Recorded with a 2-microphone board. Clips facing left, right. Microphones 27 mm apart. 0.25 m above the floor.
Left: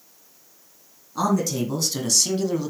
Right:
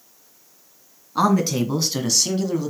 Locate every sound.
1.1 s a man speaking: 45° right (ahead or behind), 2.5 m; by 2.7 s 5° left (ahead or behind), 1.8 m